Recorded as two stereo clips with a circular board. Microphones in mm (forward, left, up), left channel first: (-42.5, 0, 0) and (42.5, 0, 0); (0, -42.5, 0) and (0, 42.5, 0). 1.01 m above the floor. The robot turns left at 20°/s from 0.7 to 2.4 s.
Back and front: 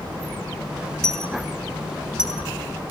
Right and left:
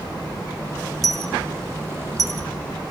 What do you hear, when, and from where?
1.0 s a dropped coin: 100° left, 0.9 m; by 2.9 s 75° left, 0.9 m